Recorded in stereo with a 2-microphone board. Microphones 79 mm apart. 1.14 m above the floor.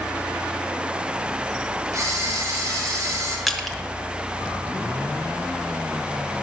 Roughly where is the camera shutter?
Right.